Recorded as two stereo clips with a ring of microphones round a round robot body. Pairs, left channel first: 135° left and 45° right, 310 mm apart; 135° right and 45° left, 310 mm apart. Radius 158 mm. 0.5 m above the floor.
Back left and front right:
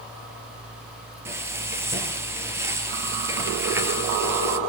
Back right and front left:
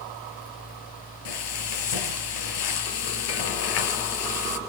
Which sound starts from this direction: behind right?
Frying, at 1.2 s.